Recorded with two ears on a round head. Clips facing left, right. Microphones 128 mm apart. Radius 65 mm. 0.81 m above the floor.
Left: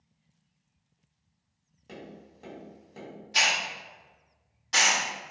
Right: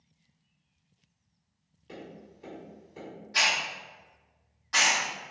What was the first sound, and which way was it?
Tapping, 50° left (ahead or behind).